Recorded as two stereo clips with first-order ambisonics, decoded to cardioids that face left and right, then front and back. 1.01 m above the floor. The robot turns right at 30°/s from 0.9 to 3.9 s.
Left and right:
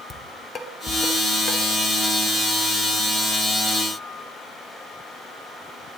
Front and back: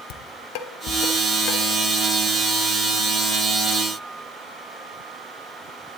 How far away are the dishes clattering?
About 1.2 m.